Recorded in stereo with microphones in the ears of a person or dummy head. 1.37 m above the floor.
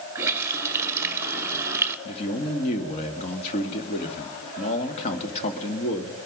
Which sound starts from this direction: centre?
A running tap, at 0.1 s.